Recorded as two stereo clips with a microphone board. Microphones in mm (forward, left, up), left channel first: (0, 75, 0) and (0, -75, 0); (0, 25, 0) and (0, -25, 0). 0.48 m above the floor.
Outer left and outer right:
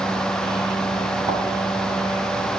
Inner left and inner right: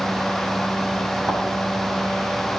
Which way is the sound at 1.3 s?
35° right (ahead or behind).